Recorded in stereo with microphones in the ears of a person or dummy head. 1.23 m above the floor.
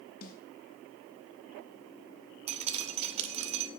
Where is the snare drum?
55° left (ahead or behind), 2 m.